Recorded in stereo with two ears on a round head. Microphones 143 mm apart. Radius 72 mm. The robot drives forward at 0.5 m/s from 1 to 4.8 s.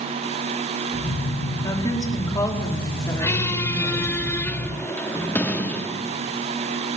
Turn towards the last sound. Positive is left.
turn(degrees=10)  # may be behind; listen again after turning